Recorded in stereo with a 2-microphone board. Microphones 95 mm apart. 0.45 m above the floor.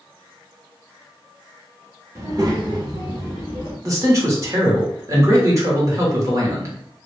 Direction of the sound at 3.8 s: 35° right (ahead or behind).